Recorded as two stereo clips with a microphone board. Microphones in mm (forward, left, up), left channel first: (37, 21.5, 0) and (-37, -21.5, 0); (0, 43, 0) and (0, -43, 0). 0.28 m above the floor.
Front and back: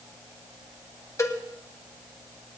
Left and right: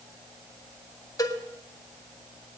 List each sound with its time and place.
1.2 s a cowbell: 70° left, 1.4 m